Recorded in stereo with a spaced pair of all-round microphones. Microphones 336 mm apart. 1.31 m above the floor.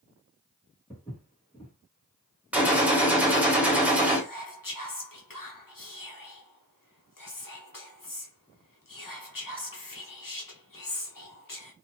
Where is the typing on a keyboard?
No typing on a keyboard in this recording.